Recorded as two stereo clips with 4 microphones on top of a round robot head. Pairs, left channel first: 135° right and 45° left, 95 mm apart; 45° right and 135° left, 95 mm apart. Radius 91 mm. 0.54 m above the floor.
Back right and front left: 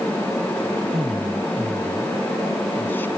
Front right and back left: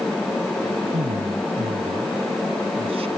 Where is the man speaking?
130° left; by 3.1 s 155° left.